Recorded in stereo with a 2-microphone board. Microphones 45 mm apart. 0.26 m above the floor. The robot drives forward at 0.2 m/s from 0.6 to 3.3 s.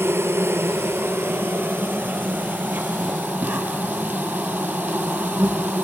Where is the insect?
55° right (ahead or behind), 0.7 m; by 5.8 s 35° right (ahead or behind), 1.1 m.